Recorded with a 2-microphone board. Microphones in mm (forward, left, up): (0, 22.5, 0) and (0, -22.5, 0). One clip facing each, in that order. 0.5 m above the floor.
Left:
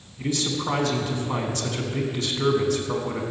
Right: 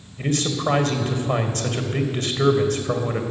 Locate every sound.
0.2 s a man speaking: 60° right (ahead or behind), 2 m